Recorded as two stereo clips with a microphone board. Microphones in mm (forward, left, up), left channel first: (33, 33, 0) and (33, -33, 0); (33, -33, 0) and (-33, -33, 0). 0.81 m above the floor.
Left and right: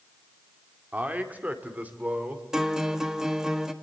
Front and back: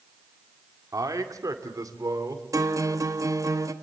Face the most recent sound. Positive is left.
turn(degrees=-170)